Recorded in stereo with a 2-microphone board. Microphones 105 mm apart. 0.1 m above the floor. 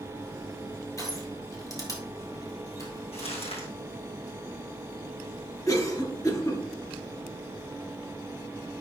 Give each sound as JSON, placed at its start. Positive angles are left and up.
{"t": 1.0, "sound": "crushing", "side_deg": 30, "distance_m": 2.0}
{"t": 3.1, "sound": "crumpling", "side_deg": 75, "distance_m": 2.5}
{"t": 5.7, "sound": "a cough", "side_deg": 35, "distance_m": 1.8}